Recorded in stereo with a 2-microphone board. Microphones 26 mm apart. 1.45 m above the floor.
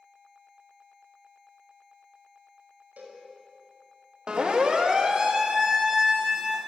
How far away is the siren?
About 3 m.